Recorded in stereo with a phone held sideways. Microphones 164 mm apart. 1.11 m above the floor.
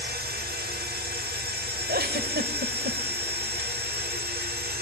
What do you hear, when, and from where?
0.0 s a machine running: 80° right, 3.5 m
1.9 s a giggle: 70° right (ahead or behind), 2.5 m